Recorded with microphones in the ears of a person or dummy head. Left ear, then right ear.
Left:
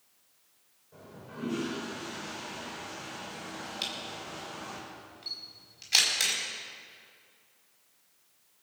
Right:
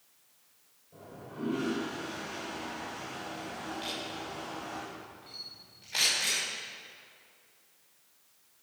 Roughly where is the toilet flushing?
Left.